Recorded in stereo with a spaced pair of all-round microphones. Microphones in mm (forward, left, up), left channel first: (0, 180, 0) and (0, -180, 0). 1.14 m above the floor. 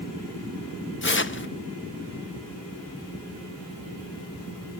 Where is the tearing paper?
35° left (ahead or behind), 0.5 m.